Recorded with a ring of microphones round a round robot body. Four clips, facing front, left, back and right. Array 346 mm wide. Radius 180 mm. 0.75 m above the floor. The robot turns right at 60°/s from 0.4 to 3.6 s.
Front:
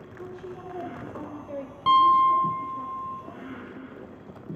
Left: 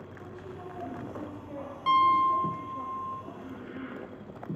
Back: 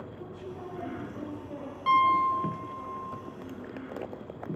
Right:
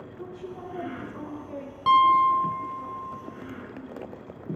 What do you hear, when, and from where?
0.2 s a woman speaking: 65° right, 3 m; by 2.9 s 80° left, 3 m
1.9 s a piano: 35° right, 1.5 m; by 3.2 s 45° left, 1.5 m